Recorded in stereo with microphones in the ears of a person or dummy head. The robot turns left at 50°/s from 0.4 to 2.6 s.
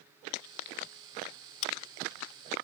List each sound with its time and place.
1.6 s scissors: 45° left (ahead or behind); by 1.7 s 40° left (ahead or behind)